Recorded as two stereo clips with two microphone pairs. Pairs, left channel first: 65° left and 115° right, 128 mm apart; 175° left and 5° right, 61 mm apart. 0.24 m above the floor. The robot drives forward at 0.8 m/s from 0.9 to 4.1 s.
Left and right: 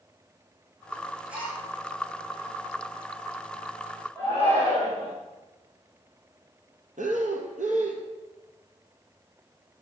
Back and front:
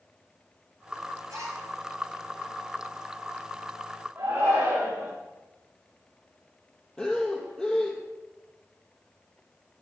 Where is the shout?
60° right, 6.5 m.